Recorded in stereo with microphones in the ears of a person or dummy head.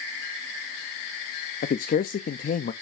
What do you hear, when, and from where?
1.6 s a man speaking: 40° left (ahead or behind), 0.5 m